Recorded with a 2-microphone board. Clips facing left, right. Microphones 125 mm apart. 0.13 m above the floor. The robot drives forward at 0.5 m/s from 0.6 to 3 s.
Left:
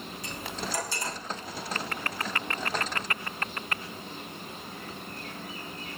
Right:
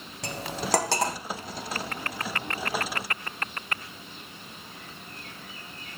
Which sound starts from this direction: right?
Cutlery clinking, at 0.2 s.